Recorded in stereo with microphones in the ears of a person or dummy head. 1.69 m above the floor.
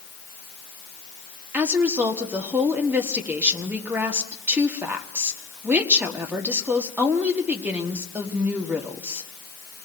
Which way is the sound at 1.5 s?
10° right (ahead or behind).